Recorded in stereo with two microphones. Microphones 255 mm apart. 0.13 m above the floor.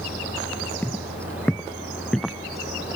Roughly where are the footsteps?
Centre.